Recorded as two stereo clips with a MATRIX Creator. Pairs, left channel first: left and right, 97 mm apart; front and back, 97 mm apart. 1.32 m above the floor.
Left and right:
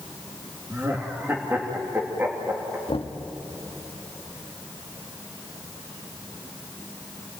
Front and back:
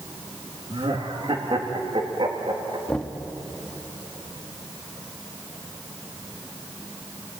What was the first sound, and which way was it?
Laughter, 155° right.